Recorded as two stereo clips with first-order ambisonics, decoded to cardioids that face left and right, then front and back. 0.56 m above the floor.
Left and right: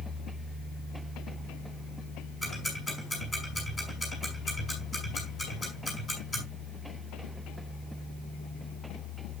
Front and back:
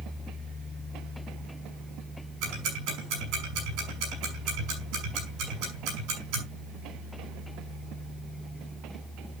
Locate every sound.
2.4 s ticking: 165° left, 6.5 m